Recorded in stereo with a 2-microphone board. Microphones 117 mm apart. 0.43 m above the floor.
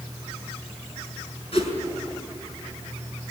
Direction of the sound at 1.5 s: 50° left (ahead or behind).